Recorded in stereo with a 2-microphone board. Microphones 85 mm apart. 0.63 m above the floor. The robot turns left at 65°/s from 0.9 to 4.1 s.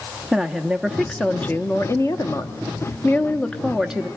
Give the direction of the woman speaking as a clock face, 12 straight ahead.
6 o'clock.